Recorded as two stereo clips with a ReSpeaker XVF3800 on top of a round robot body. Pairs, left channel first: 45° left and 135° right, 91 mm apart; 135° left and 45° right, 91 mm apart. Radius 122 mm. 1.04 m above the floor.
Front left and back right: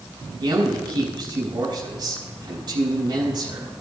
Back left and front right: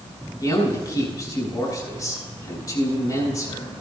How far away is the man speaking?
About 6.5 m.